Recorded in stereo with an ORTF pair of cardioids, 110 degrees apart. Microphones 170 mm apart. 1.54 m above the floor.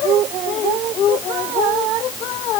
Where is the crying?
No crying in this recording.